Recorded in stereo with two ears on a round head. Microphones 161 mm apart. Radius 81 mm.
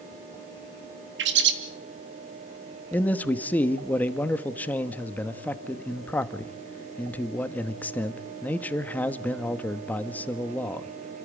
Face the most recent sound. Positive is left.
turn(degrees=10)  # may be behind; listen again after turning